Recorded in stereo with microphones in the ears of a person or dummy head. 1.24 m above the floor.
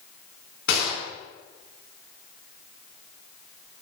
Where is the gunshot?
80° left, 5 m.